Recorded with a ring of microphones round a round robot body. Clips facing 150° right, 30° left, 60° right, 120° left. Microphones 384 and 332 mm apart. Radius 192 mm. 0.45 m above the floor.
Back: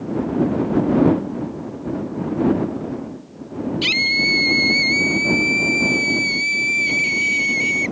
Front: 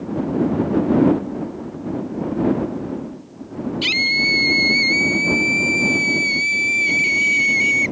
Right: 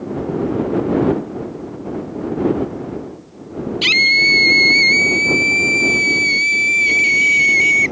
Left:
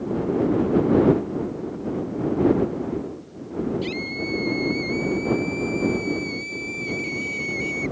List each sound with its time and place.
3.8 s a scream: 60° right; by 7.9 s 55° right